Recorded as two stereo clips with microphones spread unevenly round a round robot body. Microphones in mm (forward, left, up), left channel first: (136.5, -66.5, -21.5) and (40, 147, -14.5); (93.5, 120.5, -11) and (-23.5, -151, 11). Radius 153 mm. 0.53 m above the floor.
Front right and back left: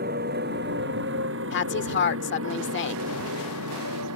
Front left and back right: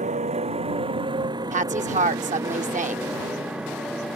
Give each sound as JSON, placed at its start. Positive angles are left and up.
{"t": 0.0, "sound": "a motorcycle", "azimuth_deg": 175}
{"t": 1.5, "sound": "a woman speaking", "azimuth_deg": -50}